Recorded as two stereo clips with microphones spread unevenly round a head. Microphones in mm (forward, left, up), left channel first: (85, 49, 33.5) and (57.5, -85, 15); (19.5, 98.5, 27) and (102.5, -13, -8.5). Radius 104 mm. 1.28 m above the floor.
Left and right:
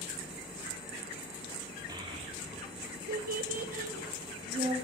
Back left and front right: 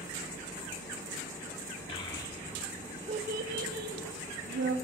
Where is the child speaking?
175° right, 1.5 m; by 4.8 s 55° right, 1.9 m.